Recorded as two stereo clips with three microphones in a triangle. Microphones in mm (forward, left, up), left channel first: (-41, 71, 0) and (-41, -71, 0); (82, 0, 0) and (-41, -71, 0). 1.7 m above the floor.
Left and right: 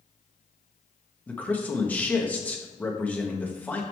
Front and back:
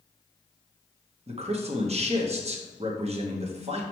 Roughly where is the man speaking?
Behind.